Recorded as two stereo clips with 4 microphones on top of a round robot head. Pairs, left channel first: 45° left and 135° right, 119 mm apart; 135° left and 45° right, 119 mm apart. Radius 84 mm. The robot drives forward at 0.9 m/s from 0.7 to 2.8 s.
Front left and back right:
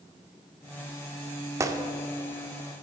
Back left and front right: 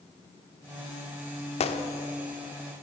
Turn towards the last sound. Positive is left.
turn(degrees=175)